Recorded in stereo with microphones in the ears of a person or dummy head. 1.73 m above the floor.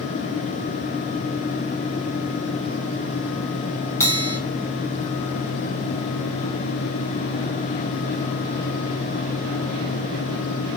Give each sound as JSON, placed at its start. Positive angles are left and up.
{"t": 4.0, "sound": "a bell", "side_deg": 15, "distance_m": 1.0}